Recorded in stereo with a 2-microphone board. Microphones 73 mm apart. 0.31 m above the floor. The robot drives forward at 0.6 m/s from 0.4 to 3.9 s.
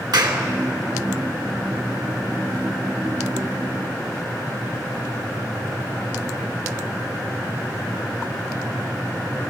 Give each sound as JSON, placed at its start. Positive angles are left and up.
{"t": 0.1, "sound": "a clap", "side_deg": -75, "distance_m": 2.5}